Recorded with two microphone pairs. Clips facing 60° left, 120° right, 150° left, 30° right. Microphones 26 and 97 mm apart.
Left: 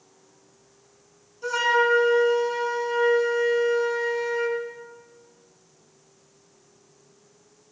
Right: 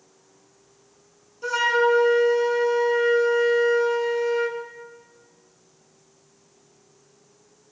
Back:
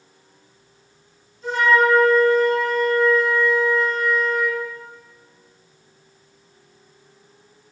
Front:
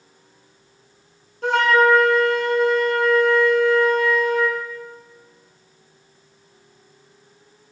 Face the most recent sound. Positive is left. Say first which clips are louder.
# right 1 dB, front 2 dB
turn(degrees=-35)